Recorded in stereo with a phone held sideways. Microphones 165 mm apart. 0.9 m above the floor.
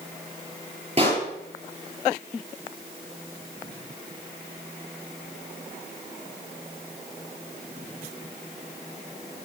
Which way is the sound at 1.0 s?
40° right (ahead or behind).